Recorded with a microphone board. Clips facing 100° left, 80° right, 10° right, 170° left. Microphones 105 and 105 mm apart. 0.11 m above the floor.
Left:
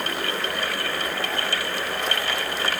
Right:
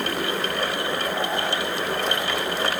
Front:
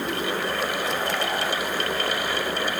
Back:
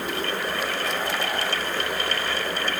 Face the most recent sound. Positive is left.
No sound to turn to.